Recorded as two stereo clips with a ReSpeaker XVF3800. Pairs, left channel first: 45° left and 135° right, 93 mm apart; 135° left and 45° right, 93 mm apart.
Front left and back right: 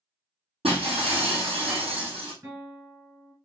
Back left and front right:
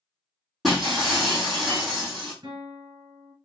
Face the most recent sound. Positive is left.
turn(degrees=-85)